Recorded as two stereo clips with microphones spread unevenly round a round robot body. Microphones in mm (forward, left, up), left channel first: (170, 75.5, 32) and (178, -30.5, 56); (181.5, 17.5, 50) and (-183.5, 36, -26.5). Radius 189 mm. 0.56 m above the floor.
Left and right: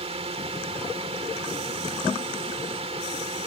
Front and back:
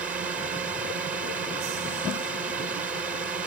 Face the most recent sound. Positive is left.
turn(degrees=-105)